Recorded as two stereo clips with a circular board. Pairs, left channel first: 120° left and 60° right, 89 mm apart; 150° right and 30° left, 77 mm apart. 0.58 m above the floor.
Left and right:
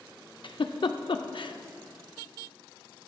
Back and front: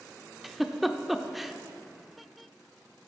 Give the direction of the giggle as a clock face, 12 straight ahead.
8 o'clock.